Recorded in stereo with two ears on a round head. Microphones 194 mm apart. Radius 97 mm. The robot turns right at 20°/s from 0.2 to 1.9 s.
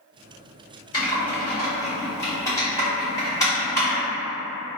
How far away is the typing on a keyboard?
About 1.3 m.